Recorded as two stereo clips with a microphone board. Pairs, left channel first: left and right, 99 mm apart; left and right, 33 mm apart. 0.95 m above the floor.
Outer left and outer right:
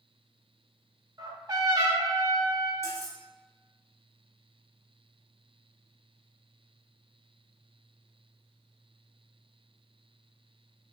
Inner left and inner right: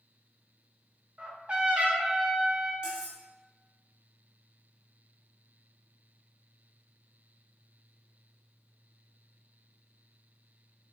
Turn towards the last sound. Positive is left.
turn(degrees=-30)  # may be behind; listen again after turning